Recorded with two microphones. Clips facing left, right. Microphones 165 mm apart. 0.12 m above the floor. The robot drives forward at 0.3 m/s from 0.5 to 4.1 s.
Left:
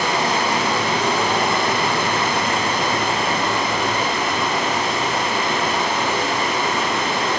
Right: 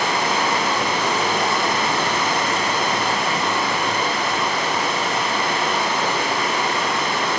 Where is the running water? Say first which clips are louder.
Left 1 dB; 65° left (ahead or behind), 2 m; by 7.4 s 45° left (ahead or behind), 3 m.